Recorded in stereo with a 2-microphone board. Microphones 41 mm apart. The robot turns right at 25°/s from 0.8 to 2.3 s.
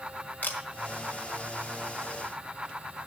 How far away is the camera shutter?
About 1.8 m.